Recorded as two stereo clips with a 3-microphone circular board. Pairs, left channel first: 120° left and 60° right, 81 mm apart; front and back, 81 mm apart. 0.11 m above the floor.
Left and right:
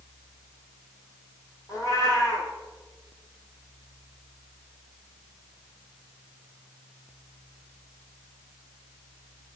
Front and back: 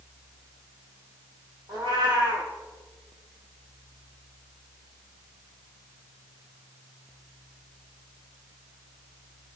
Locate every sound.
1.7 s a cat meowing: 165° left, 2.5 m